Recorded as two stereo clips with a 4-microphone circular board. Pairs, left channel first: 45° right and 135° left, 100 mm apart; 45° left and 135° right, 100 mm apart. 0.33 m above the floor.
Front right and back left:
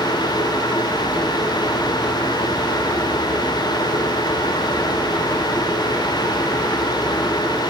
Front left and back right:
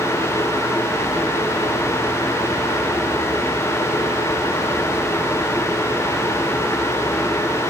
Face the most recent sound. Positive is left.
No sound to turn to.